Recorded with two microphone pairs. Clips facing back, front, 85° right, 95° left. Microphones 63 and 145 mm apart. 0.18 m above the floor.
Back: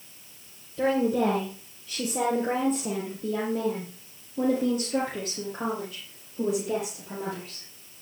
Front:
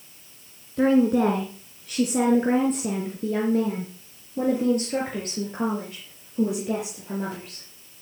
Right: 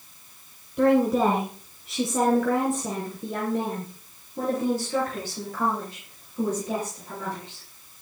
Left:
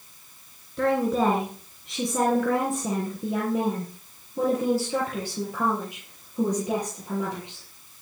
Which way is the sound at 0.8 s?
15° right.